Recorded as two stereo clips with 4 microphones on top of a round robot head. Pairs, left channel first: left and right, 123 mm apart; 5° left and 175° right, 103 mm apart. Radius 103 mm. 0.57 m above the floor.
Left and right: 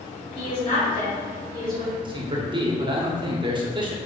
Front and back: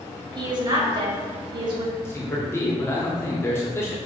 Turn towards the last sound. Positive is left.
turn(degrees=-55)